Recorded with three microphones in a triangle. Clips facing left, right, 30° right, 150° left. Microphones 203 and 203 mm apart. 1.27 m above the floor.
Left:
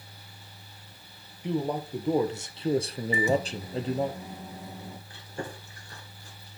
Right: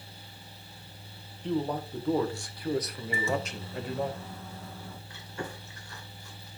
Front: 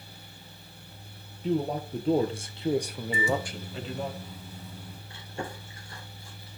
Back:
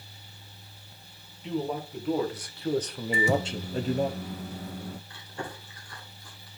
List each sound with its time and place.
1.4 s a man speaking: 10° left, 1.5 m; by 4.1 s 150° left, 0.9 m
3.1 s a microwave: 160° left, 0.5 m
5.1 s chewing: 35° left, 2.5 m